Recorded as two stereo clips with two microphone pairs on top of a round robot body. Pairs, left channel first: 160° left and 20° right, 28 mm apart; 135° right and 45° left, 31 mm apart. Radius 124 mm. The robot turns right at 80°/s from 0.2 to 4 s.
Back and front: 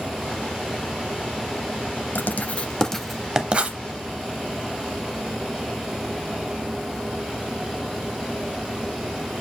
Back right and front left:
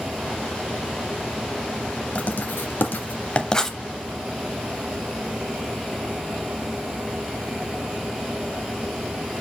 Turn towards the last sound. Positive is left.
turn(degrees=-35)